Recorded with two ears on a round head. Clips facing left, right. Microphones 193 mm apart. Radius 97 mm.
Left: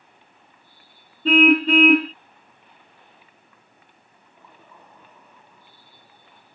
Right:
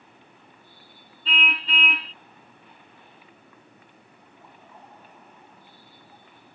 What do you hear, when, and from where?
1.2 s a car horn: 40° left (ahead or behind)
4.2 s laughter: 75° left (ahead or behind)